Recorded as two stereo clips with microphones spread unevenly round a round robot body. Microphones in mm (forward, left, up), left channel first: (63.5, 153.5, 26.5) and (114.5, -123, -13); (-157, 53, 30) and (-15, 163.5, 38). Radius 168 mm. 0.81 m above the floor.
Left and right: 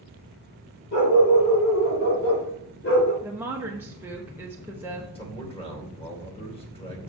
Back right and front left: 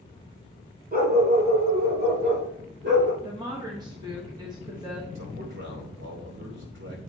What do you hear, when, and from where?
0.9 s a dog barking: 70° left, 4.5 m; by 3.1 s 50° left, 3.5 m
3.2 s a woman speaking: 15° right, 1.0 m
5.2 s a man speaking: 30° left, 2.5 m